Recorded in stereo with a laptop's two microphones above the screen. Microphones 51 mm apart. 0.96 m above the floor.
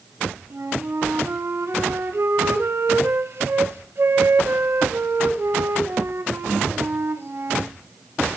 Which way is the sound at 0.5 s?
55° right (ahead or behind).